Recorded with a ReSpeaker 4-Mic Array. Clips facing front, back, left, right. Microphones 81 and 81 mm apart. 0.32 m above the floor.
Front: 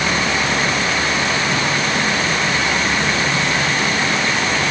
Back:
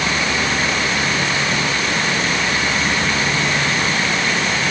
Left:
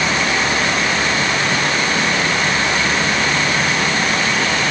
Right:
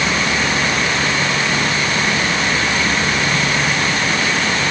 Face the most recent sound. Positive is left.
No sound to turn to.